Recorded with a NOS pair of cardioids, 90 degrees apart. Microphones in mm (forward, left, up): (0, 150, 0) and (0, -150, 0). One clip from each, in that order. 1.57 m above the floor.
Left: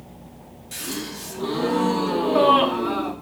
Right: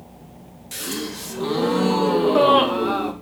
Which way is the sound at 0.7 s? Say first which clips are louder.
Right 2 dB; 20° right.